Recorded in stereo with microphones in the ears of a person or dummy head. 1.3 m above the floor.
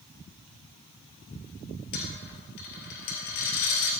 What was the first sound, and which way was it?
A dropped coin, 55° left (ahead or behind).